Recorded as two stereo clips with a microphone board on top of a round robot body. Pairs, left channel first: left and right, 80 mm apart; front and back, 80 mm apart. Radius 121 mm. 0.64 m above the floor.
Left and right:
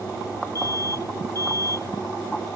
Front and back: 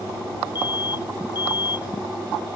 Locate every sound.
0.6 s an alarm: 35° left